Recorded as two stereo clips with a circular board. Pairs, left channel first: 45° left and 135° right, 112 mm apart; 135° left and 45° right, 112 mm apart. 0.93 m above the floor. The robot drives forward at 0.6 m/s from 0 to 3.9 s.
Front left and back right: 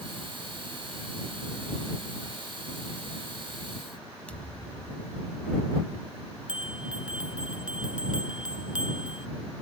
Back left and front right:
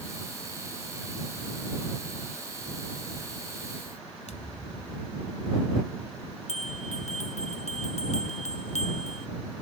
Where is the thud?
125° left.